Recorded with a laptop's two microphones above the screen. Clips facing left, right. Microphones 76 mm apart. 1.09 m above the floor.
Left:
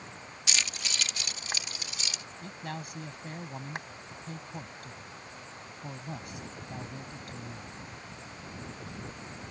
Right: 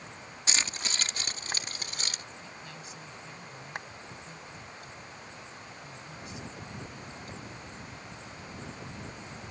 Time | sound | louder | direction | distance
0.5 | keys jangling | right 1 dB | 35° right (ahead or behind) | ?
2.4 | a man speaking | left 6 dB | 55° left (ahead or behind) | ?